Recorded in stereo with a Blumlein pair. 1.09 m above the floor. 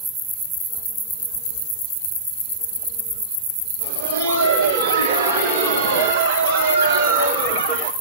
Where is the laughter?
50° right, 6 m; by 7.9 s 45° right, 4 m.